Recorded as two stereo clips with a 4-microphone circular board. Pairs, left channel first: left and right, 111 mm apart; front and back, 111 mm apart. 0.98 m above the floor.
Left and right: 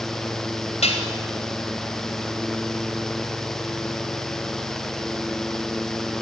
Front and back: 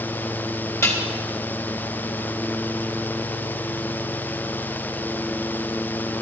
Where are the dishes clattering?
65° left, 3 m.